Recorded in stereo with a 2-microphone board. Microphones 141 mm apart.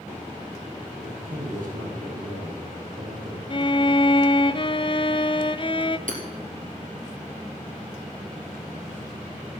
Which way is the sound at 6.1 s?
70° right (ahead or behind).